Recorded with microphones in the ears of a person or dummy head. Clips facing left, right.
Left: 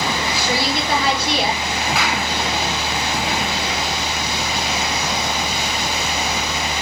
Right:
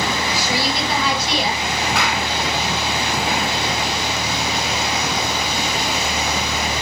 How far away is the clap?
About 4.5 m.